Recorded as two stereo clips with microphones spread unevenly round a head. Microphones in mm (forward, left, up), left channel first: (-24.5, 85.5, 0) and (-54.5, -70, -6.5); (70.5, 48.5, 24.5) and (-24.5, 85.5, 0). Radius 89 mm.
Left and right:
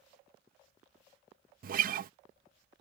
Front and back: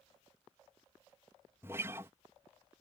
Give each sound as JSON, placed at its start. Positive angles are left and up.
{"t": 1.6, "sound": "a guitar", "azimuth_deg": -130}